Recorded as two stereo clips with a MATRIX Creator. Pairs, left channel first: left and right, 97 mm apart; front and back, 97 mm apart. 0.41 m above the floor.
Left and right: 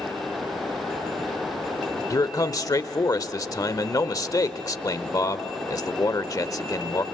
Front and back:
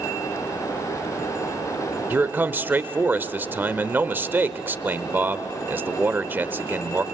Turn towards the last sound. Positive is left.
turn(degrees=120)